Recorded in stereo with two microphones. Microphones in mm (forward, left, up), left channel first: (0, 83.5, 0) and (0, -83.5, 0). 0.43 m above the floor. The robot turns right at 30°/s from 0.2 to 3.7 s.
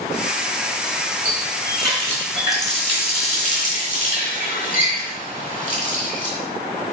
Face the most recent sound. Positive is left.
turn(degrees=55)